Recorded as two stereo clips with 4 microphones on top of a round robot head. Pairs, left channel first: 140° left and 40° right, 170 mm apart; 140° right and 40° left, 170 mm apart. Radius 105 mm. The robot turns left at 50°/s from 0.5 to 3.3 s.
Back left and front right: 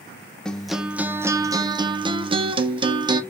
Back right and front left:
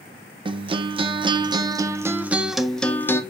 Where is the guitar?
55° left, 0.6 m; by 3.2 s 80° right, 0.6 m.